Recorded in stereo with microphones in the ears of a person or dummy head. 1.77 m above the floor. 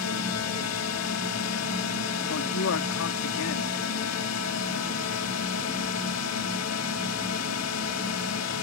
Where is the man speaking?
85° left.